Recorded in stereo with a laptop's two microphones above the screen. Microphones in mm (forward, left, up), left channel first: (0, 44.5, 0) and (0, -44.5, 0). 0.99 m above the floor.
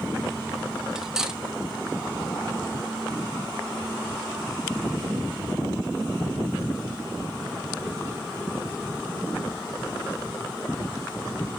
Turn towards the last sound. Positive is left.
turn(degrees=-5)  # may be behind; listen again after turning